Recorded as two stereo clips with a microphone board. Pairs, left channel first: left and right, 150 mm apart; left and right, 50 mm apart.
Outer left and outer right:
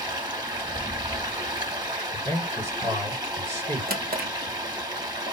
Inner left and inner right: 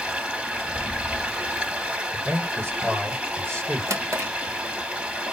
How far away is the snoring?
No snoring in this recording.